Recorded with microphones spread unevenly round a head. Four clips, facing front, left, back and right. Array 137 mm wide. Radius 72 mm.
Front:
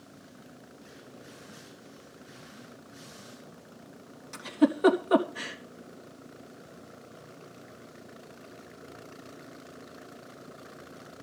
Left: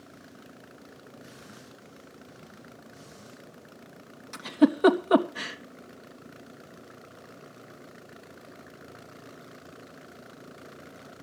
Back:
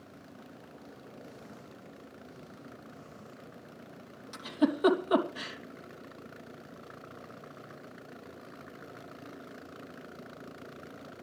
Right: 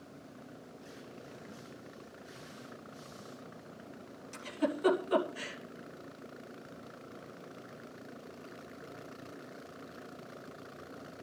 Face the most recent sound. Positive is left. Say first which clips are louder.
# left 12 dB, front 4 dB
turn(degrees=75)